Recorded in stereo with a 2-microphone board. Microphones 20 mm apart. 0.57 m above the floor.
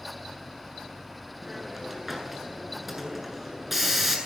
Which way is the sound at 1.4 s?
5° right (ahead or behind).